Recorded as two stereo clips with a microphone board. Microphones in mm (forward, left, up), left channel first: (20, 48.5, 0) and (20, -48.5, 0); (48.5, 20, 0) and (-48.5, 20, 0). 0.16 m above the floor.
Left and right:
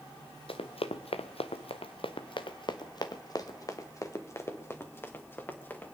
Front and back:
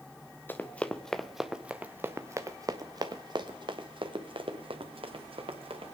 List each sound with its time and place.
0.5 s running footsteps: 70° left, 1.1 m; by 5.9 s 160° left, 2.5 m